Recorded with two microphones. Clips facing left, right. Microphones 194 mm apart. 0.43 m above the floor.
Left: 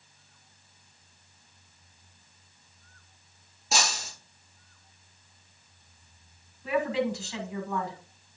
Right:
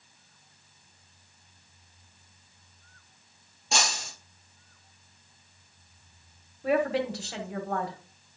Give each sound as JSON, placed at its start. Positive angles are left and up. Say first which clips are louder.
{"t": 3.7, "sound": "breaking glass", "louder": "even", "side_deg": 0, "distance_m": 4.0}
{"t": 6.6, "sound": "a woman speaking", "louder": "right 1 dB", "side_deg": -70, "distance_m": 1.8}